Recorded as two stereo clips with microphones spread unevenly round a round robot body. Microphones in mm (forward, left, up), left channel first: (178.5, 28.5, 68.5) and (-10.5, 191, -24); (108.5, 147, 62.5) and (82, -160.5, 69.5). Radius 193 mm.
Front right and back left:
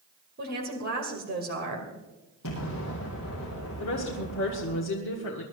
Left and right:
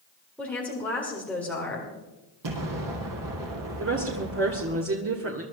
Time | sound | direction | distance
0.4 | a woman speaking | 170° left | 2.5 m
2.4 | an explosion | 80° right | 3.5 m
3.8 | a woman speaking | 65° right | 1.6 m